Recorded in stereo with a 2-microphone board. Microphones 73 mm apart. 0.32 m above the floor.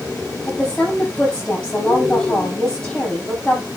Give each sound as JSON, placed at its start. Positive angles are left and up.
{"t": 0.5, "sound": "a woman speaking", "side_deg": 10, "distance_m": 9.5}